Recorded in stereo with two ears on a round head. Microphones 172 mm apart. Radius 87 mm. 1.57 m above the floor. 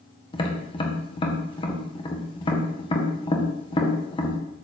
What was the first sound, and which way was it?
Tapping, 30° left (ahead or behind).